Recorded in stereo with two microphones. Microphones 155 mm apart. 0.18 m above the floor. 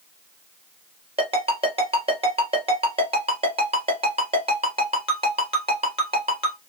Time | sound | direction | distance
1.2 | a ringtone | 40° right (ahead or behind) | 2.5 m